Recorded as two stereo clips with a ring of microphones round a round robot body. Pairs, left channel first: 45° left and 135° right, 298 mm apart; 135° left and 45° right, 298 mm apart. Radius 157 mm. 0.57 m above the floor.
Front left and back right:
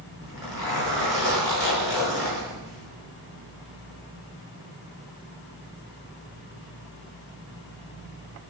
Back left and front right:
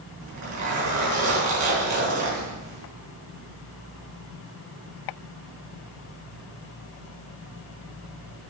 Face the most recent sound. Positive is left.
turn(degrees=-10)